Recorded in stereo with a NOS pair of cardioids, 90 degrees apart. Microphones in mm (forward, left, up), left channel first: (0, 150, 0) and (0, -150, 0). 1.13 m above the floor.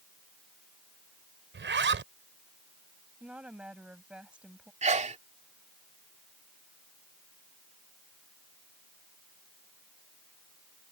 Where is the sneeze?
25° right.